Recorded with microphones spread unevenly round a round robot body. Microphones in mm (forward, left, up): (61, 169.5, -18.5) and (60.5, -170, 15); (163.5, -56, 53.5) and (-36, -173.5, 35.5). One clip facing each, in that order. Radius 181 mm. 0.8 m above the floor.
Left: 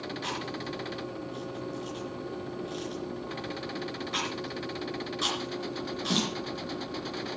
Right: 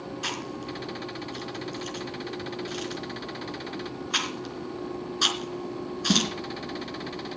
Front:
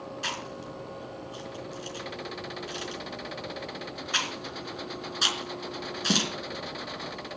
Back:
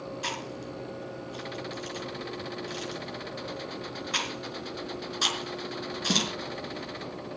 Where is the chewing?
55° right, 4 m.